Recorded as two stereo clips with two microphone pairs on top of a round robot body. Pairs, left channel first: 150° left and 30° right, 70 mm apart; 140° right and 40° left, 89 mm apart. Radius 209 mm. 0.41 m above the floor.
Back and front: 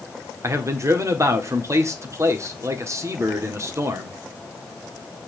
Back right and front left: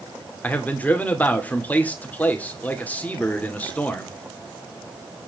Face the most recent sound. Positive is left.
turn(degrees=-60)